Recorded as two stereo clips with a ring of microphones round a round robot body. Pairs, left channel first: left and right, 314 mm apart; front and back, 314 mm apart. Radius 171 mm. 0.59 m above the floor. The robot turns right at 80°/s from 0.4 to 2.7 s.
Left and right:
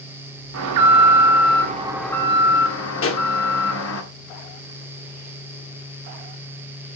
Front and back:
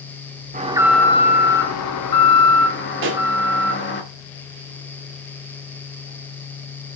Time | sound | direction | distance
0.5 | an alarm | 120° right | 1.7 m
3.0 | a pop | 130° left | 1.7 m